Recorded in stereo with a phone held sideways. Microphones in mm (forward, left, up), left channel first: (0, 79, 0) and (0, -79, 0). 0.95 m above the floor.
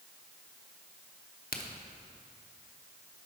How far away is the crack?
About 0.7 m.